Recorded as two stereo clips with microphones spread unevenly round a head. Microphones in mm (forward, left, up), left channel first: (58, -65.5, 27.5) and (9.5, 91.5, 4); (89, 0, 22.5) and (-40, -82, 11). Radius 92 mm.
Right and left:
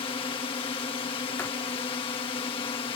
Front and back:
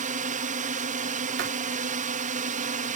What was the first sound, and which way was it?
A drone, 135° right.